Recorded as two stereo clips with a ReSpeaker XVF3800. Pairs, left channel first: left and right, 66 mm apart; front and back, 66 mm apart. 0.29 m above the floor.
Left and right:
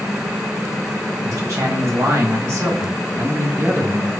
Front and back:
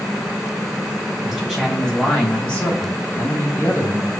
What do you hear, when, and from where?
1.2 s a man speaking: 90° right, 1.9 m; by 4.1 s 40° right, 2 m